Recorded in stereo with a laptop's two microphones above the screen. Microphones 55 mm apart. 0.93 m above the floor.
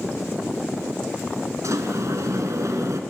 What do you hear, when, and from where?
1.6 s a sliding door: 70° right (ahead or behind), 2 m